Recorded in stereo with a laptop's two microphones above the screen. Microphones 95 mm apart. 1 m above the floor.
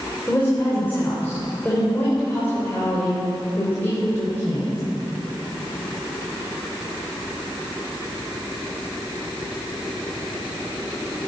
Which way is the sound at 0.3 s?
20° left (ahead or behind).